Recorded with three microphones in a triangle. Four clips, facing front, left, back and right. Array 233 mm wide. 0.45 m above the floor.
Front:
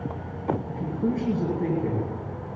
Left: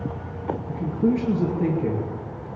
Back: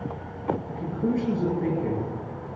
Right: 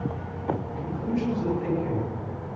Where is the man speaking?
90° left, 6.5 m.